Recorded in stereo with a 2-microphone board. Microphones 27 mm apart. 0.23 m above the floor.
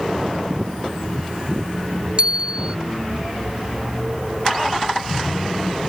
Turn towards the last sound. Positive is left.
turn(degrees=-35)  # may be behind; listen again after turning